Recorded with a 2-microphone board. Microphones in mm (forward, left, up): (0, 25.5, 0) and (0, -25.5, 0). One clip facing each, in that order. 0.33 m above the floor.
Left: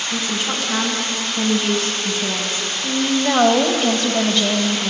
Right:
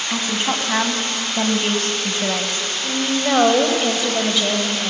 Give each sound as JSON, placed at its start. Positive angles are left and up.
{"t": 0.1, "sound": "a woman speaking", "side_deg": -40, "distance_m": 3.0}
{"t": 2.8, "sound": "a woman speaking", "side_deg": -5, "distance_m": 1.7}